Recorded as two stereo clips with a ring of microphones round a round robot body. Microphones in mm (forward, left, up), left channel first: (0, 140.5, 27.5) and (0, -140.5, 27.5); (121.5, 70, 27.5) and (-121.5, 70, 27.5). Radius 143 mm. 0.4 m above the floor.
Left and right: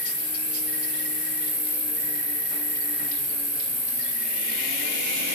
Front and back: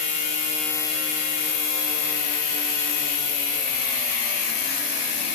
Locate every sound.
0.0 s an insect: 15° right, 3.5 m